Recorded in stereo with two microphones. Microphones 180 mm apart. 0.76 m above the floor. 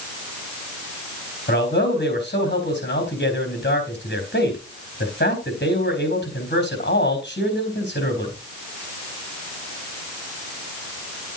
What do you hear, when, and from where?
1.5 s a man speaking: 70° left (ahead or behind), 4 m